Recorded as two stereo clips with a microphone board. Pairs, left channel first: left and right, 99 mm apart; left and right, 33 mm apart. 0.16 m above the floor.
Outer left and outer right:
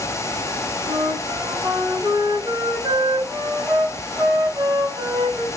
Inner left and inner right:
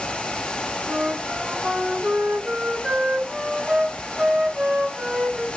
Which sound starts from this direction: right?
A flute, at 0.9 s.